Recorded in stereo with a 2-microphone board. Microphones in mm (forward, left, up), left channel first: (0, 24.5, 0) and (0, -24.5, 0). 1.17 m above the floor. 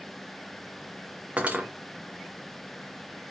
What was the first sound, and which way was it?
Cutlery clinking, 30° right (ahead or behind).